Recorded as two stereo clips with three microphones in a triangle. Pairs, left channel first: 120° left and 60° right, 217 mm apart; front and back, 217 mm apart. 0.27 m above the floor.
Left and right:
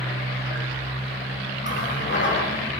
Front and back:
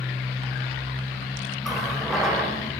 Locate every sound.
1.6 s a running tap: 90° left, 8.5 m